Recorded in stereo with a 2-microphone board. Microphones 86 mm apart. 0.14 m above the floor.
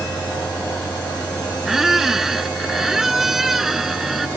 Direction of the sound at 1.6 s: 5° right (ahead or behind).